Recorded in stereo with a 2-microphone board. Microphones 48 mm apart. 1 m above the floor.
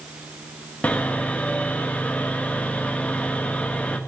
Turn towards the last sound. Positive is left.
turn(degrees=30)  # may be behind; listen again after turning